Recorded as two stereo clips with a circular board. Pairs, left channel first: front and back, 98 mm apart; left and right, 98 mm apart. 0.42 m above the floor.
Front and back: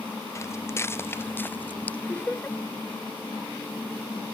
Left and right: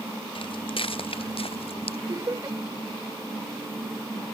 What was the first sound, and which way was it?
Footsteps, 60° left.